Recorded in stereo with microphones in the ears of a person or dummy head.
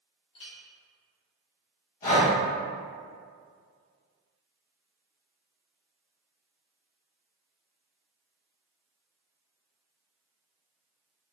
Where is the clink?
25° left (ahead or behind), 1.1 m.